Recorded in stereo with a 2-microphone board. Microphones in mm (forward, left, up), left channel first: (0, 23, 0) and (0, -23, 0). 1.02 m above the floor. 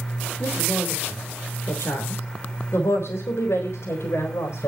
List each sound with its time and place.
0.4 s a woman speaking: 45° left (ahead or behind), 3.5 m; by 4.7 s 80° left, 4.5 m